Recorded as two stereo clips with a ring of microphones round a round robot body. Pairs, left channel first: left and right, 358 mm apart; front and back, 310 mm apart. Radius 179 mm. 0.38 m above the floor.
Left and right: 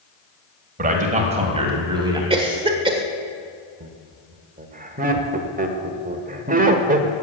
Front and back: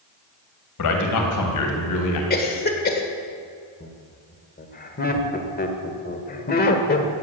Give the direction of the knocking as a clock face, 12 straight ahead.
No knocking in this recording.